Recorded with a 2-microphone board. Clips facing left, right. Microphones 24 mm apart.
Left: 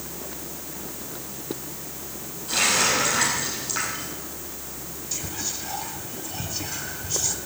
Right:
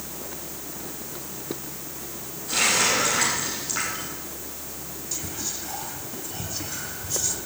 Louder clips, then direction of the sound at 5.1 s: Left 1 dB; 15° left (ahead or behind).